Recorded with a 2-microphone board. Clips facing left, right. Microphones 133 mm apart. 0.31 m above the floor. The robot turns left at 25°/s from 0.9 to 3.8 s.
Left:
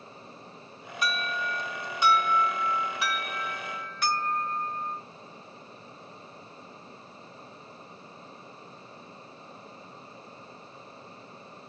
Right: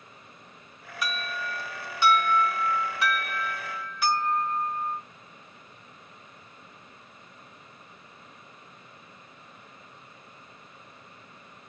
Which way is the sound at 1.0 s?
60° left.